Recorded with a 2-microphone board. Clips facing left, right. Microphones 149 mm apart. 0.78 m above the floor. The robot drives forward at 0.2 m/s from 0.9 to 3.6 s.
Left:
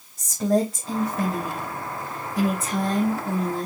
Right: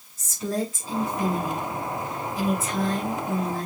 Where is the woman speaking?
65° left (ahead or behind), 4.5 m; by 3.7 s 60° left (ahead or behind), 5 m.